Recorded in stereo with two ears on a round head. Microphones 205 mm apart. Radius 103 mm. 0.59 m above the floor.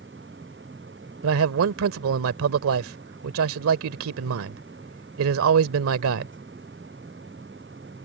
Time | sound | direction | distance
1.2 | a man speaking | 70° right (ahead or behind) | ?